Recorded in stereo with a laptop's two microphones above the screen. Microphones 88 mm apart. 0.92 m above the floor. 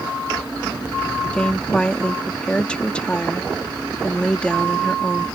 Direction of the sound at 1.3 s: 10° left (ahead or behind).